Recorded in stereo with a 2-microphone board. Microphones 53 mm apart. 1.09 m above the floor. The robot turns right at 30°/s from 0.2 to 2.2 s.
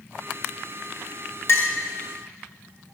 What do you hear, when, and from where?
1.5 s a clink: 50° left (ahead or behind), 2.0 m; by 1.8 s 40° left (ahead or behind), 2.0 m